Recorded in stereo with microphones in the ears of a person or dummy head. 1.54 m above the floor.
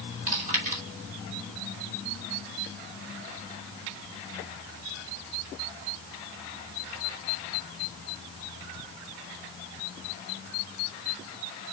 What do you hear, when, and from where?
0.3 s chewing: 45° right (ahead or behind), 2.5 m